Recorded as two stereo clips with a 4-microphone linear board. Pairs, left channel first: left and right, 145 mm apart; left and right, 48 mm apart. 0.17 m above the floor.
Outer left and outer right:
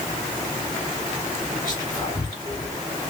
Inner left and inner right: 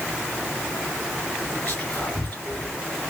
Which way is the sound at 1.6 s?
30° left (ahead or behind).